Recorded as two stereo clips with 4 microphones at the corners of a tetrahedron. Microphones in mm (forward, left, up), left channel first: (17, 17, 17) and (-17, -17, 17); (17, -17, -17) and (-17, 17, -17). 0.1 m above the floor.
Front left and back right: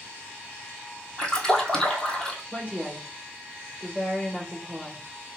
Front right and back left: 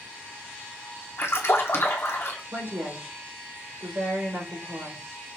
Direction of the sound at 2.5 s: 105° left.